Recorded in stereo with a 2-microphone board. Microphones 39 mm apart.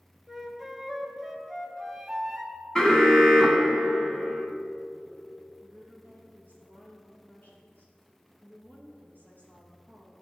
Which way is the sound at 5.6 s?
50° left (ahead or behind).